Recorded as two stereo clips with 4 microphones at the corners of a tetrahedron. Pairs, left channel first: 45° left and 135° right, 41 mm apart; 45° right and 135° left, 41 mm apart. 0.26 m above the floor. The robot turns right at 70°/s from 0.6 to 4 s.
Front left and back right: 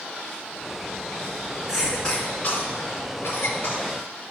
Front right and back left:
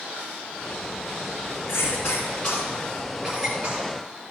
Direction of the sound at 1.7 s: 50° right.